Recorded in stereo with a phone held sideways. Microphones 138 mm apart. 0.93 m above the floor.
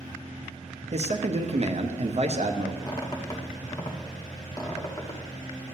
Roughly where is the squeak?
Left.